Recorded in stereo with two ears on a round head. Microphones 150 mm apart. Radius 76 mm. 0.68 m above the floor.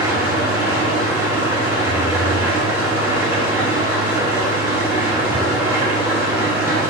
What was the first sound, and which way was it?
An engine running, 15° right (ahead or behind).